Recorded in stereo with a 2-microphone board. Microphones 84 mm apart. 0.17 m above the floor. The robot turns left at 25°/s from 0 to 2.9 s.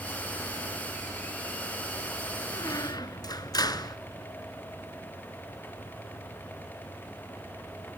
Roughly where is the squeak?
Left.